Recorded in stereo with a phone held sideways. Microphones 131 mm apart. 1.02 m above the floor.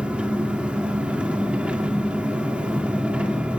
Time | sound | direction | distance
0.0 | an engine running | 10° right (ahead or behind) | 2 m